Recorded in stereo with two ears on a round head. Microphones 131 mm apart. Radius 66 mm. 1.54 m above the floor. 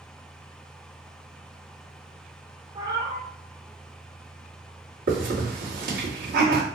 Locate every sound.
2.8 s a cat meowing: 30° right (ahead or behind), 0.8 m
5.1 s a hiss: 70° right (ahead or behind), 1.5 m